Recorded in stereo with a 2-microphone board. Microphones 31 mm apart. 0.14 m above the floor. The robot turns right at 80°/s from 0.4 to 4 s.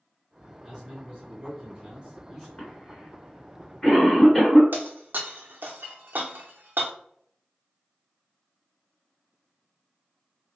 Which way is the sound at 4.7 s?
80° right.